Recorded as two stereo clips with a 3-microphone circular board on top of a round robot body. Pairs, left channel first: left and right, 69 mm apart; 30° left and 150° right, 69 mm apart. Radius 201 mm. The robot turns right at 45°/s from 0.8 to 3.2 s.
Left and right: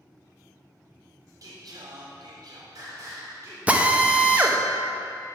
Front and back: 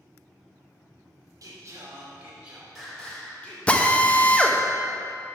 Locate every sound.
1.4 s singing: 120° right, 3 m; by 3.6 s 40° right, 3 m
3.7 s a drill: 30° right, 1.2 m